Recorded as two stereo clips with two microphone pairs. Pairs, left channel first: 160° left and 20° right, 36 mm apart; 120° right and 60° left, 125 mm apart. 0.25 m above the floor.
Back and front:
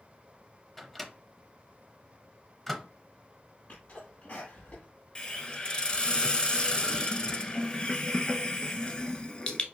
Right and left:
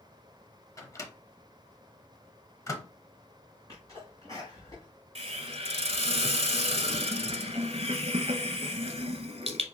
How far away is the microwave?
About 0.7 m.